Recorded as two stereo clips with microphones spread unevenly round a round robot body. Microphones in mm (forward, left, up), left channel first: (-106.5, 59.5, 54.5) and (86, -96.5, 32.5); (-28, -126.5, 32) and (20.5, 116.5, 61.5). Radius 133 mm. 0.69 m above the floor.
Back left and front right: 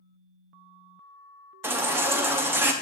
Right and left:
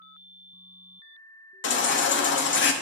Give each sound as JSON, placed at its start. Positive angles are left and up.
{"t": 1.6, "sound": "a baby crying", "azimuth_deg": -115, "distance_m": 1.0}